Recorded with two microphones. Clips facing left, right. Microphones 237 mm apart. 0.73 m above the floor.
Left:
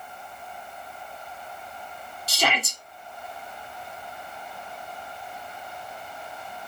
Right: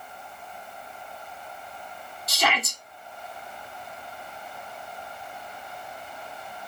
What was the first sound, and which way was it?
A shout, 35° left (ahead or behind).